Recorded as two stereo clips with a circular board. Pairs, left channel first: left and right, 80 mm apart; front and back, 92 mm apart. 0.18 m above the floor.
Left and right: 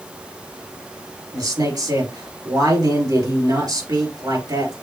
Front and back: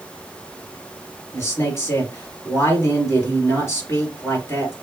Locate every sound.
1.3 s a man speaking: 60° right, 3.5 m